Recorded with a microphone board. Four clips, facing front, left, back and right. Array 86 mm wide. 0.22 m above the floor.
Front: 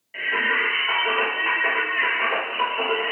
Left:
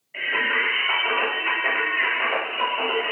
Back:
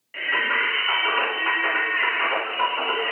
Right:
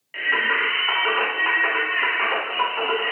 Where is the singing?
100° right, 1.5 m.